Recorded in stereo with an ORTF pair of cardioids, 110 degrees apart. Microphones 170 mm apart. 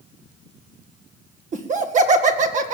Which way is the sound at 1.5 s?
45° right.